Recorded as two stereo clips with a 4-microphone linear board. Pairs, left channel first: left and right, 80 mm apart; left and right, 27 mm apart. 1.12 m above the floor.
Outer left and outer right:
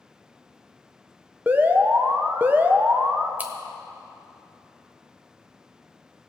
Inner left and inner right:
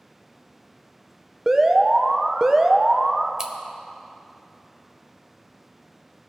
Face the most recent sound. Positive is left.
turn(degrees=-20)  # may be behind; listen again after turning